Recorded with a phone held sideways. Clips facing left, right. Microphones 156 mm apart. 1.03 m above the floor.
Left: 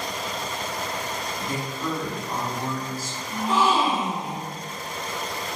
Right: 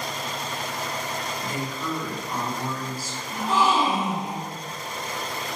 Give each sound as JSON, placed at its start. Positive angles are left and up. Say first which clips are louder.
{"t": 1.4, "sound": "a woman speaking", "louder": "left 1 dB", "side_deg": 25, "distance_m": 1.4}
{"t": 3.3, "sound": "a gasp", "louder": "even", "side_deg": -5, "distance_m": 1.9}